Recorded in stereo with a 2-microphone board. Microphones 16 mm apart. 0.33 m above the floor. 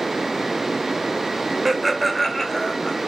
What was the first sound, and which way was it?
Laughter, 15° right (ahead or behind).